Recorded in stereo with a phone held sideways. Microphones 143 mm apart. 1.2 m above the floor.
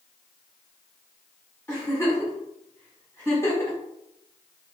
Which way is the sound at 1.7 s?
20° left (ahead or behind).